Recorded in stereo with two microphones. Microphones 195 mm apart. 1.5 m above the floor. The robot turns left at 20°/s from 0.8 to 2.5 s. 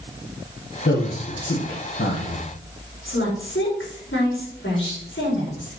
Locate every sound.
0.8 s a man speaking: 100° left, 1.3 m; by 2.4 s 70° left, 1.3 m
3.0 s a woman speaking: 80° left, 3.5 m